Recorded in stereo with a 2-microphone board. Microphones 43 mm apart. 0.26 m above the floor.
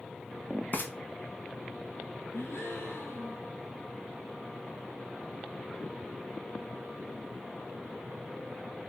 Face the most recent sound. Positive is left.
turn(degrees=75)  # may be behind; listen again after turning